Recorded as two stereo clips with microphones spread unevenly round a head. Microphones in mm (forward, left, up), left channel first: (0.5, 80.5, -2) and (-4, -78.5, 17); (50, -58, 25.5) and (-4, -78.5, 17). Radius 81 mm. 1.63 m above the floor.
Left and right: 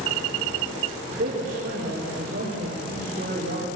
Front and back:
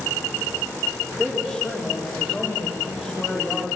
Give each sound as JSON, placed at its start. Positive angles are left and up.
{"t": 1.1, "sound": "a man speaking", "azimuth_deg": -55, "distance_m": 5.0}